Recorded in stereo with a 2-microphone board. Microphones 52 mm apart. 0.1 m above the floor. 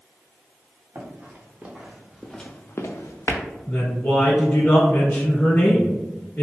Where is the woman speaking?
40° left (ahead or behind), 1.6 m.